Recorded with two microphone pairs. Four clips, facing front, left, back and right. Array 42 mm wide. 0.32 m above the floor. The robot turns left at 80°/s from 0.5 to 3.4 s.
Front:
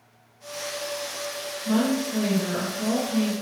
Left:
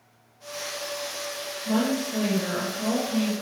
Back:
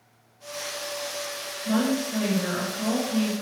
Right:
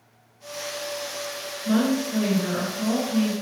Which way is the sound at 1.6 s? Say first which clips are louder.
Right 3 dB, front 1 dB; 115° right.